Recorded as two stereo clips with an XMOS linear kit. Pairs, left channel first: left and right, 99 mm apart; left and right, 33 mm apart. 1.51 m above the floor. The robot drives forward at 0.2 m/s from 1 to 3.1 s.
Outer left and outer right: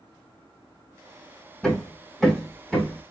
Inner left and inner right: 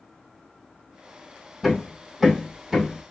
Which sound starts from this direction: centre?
Hammering, at 1.6 s.